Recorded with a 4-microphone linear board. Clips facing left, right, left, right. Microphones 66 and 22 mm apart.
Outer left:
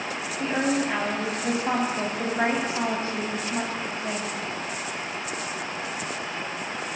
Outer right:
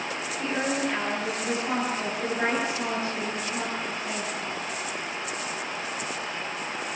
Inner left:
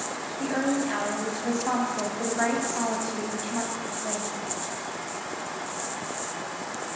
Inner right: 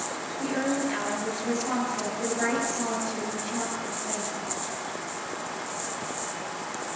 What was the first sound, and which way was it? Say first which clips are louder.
A woman speaking: outer left 3 dB, inner left 1 dB; 35° left (ahead or behind).